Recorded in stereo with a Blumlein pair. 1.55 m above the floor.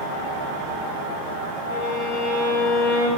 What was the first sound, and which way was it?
A violin, 50° left.